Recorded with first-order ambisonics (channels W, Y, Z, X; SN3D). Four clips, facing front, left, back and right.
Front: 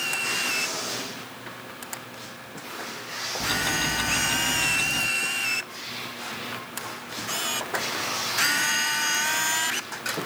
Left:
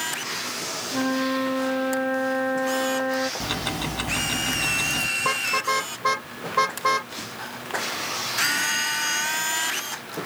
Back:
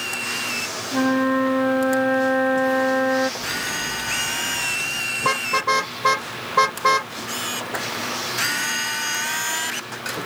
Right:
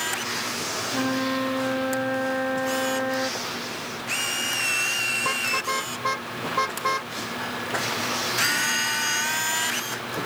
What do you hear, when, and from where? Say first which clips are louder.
0.9 s a flute: left 2 dB, back 15 dB; 175° left
3.4 s ticking: left 3 dB, even; 70° left
5.2 s a car horn: left 1 dB, back 6 dB; 170° left